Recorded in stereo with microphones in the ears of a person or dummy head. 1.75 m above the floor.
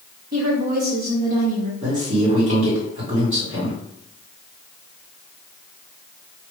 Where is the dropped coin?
I don't hear a dropped coin.